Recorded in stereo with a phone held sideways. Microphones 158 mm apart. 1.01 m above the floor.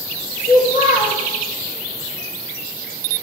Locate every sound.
0.4 s a child speaking: 60° left (ahead or behind), 0.7 m